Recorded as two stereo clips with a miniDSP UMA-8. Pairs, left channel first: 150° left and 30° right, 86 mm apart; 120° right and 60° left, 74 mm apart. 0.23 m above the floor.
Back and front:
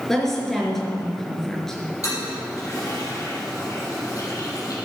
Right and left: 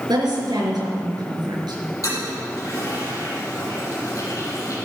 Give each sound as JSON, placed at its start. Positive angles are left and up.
{"t": 0.1, "sound": "a woman speaking", "azimuth_deg": 65, "distance_m": 4.0}
{"t": 2.0, "sound": "a toilet flushing", "azimuth_deg": -160, "distance_m": 6.5}